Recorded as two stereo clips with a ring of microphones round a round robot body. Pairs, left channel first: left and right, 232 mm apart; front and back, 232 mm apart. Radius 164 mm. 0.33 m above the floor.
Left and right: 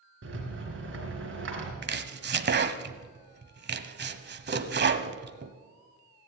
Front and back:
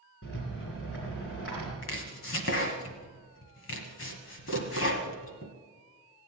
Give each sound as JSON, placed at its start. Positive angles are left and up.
{"t": 0.2, "sound": "a rattle", "azimuth_deg": -55, "distance_m": 3.5}
{"t": 1.8, "sound": "chopping", "azimuth_deg": -45, "distance_m": 1.2}